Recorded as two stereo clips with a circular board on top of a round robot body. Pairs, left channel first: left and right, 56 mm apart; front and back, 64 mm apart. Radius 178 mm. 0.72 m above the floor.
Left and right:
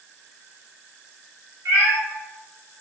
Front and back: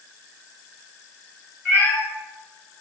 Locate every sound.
1.6 s a cat meowing: 85° right, 0.8 m